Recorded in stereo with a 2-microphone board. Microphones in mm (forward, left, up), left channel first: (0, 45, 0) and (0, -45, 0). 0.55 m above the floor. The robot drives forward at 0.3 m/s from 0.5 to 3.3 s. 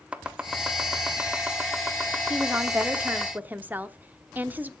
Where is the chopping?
10° right (ahead or behind), 1.3 m.